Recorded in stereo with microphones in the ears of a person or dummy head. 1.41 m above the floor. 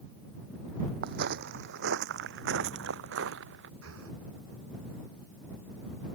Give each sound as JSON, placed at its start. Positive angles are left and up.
{"t": 1.0, "sound": "footsteps", "side_deg": -60}
{"t": 3.8, "sound": "breathing", "side_deg": -85}